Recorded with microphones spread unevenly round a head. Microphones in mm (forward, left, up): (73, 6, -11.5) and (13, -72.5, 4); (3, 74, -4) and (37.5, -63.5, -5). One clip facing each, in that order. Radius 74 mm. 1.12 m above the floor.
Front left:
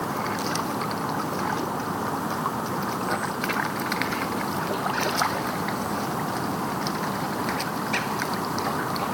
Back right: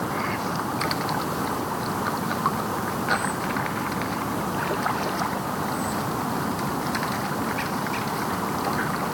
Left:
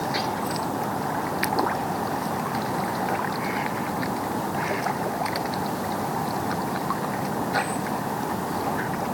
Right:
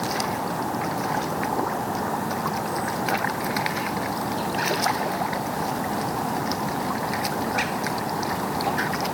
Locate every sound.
Only background noise.